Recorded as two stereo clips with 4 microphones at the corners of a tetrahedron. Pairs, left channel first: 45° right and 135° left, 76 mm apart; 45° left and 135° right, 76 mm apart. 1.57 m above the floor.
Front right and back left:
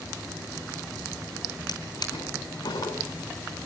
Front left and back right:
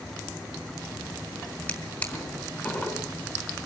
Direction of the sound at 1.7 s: 20° right.